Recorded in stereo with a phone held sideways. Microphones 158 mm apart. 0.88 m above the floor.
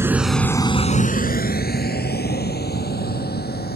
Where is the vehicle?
15° right (ahead or behind); by 3.8 s 80° left.